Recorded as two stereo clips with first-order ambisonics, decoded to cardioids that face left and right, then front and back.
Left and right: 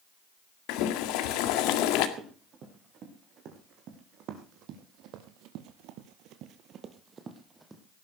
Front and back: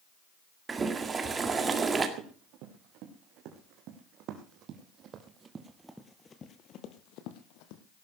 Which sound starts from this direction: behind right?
Running footsteps, at 2.2 s.